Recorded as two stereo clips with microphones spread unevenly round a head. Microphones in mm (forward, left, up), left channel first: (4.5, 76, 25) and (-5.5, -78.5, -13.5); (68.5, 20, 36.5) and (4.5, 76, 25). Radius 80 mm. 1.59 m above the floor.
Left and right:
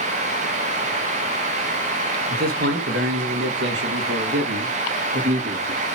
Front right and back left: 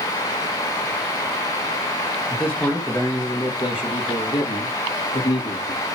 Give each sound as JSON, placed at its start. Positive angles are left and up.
{"t": 2.3, "sound": "a man speaking", "azimuth_deg": -120, "distance_m": 2.0}